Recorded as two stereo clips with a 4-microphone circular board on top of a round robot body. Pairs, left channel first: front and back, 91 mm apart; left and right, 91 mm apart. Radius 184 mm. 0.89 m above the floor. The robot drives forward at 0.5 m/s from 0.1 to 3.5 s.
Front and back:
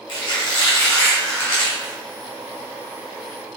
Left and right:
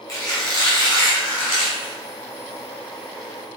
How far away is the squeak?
About 1.3 m.